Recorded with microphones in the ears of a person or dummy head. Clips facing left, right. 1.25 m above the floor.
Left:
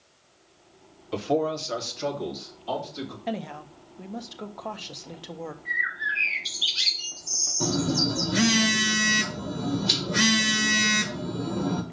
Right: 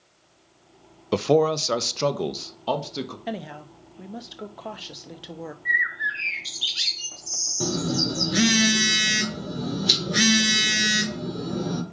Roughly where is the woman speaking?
Centre.